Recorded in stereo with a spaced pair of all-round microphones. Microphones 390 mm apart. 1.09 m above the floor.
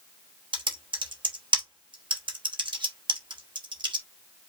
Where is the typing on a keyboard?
10° right (ahead or behind), 1.1 m.